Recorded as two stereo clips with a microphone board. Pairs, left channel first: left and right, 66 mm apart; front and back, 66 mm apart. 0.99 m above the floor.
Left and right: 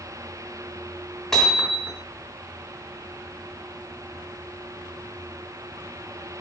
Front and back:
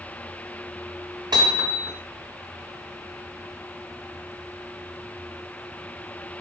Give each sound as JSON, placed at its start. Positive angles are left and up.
{"t": 1.3, "sound": "hammering", "azimuth_deg": 175, "distance_m": 3.5}